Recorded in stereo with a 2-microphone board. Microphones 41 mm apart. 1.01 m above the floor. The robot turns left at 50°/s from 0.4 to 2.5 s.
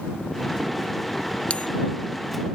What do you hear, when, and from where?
1.5 s a bell: 30° left (ahead or behind); by 1.7 s 35° left (ahead or behind)